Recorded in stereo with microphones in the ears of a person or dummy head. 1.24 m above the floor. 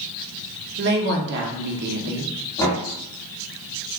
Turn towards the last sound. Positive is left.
turn(degrees=25)  # may be behind; listen again after turning